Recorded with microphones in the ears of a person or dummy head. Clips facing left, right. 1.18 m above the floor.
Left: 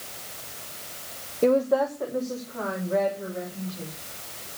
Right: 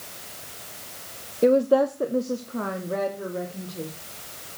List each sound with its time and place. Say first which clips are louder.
1.4 s a woman speaking: right 3 dB; 15° right (ahead or behind), 0.7 m; by 3.9 s 65° right (ahead or behind), 3.5 m